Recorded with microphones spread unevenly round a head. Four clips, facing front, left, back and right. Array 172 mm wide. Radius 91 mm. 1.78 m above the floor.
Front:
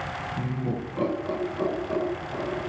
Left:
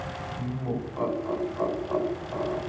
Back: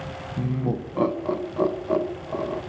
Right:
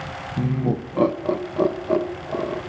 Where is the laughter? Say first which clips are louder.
Right 9 dB, back 5 dB; 95° right, 1.9 m; by 2.6 s 110° right, 3 m.